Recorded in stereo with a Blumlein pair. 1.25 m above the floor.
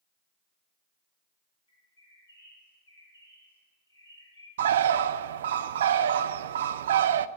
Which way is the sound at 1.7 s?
70° left.